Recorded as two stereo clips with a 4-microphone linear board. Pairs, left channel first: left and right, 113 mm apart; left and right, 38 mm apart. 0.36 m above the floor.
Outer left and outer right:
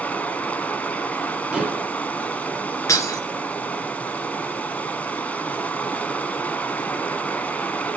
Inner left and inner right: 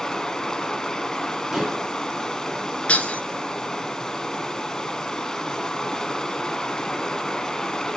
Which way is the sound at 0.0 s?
15° left (ahead or behind).